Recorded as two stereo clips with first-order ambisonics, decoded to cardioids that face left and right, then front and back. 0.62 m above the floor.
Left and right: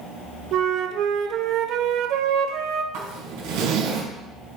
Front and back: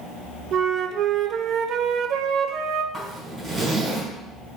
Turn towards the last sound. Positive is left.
turn(degrees=-100)